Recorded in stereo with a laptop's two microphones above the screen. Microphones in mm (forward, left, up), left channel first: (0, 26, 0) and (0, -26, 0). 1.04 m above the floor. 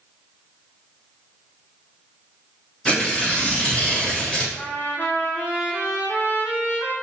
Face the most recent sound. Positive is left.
turn(degrees=40)  # may be behind; listen again after turning